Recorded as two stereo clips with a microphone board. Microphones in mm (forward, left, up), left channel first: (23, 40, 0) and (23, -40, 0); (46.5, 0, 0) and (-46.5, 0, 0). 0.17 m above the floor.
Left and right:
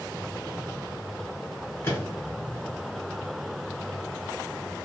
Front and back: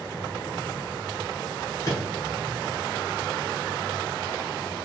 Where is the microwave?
40° left, 1.3 m.